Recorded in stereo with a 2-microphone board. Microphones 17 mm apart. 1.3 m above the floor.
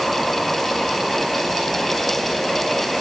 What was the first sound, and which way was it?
Only background noise.